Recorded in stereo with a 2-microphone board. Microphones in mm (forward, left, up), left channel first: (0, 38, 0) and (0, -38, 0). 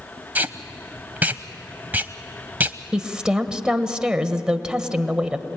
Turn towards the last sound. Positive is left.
turn(degrees=-10)  # may be behind; listen again after turning